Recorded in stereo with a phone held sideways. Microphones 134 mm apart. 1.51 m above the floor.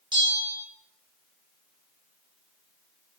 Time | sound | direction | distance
0.1 | a bell | 35° right (ahead or behind) | 1.6 m